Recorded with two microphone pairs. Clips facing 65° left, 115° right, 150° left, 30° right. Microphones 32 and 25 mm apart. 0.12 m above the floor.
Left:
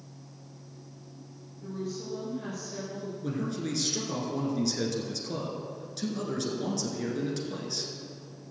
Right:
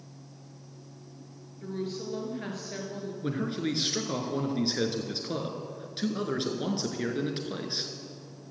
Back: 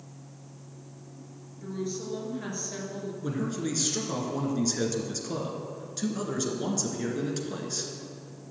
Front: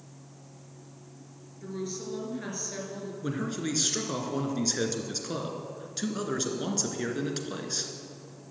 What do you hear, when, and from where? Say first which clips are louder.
1.6 s a woman speaking: right 2 dB, back 2 dB; 110° right, 2.5 m
3.2 s a man speaking: right 2 dB, even; 85° right, 1.4 m